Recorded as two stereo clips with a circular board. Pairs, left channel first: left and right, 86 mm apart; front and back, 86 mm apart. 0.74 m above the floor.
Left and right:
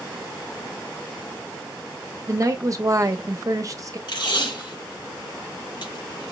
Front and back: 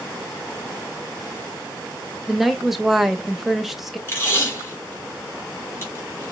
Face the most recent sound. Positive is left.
turn(degrees=60)